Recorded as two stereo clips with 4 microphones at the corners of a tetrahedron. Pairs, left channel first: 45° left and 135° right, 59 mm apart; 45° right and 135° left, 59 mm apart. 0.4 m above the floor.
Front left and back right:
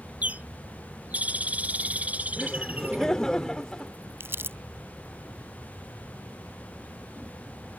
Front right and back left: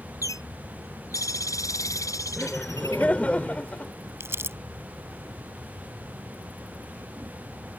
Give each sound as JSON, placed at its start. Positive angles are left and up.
{"t": 0.2, "sound": "a bird", "azimuth_deg": -70}
{"t": 2.4, "sound": "laughter", "azimuth_deg": -20}
{"t": 4.2, "sound": "crumpling", "azimuth_deg": 180}